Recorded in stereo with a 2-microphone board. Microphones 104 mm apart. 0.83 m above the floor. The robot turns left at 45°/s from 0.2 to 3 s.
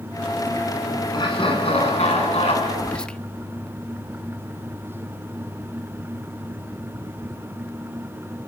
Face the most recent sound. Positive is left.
turn(degrees=10)  # may be behind; listen again after turning